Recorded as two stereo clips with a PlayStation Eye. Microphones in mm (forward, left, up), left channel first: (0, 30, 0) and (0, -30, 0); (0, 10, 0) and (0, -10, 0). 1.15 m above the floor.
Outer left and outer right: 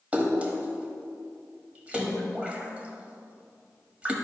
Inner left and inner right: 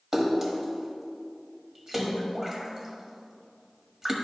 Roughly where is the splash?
Right.